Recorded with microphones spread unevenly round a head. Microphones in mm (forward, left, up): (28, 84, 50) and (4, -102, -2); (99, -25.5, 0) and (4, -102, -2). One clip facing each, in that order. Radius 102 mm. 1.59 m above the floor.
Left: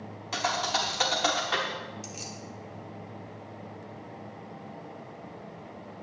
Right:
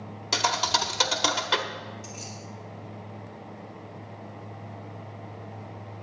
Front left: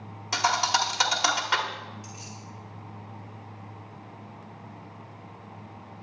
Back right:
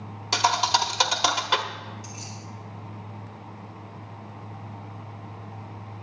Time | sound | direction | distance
0.3 | a thud | 95° right | 1.2 m
2.0 | keys jangling | 115° left | 1.8 m